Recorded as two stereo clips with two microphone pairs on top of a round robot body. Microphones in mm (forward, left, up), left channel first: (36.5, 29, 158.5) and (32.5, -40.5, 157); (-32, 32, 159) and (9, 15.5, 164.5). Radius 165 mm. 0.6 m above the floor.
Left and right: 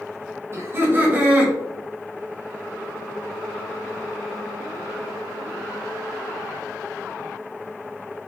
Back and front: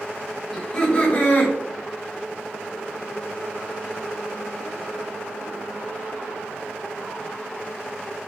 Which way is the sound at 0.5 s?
135° right.